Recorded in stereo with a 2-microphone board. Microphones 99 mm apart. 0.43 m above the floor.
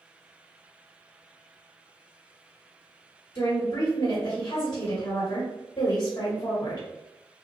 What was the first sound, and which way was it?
A woman speaking, 30° left (ahead or behind).